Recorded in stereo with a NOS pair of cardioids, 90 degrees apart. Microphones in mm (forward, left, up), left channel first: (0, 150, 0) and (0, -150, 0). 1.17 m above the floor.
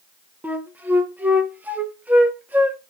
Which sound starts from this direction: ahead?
A flute, at 0.4 s.